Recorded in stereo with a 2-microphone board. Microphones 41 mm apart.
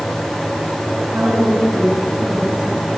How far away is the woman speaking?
About 7.5 m.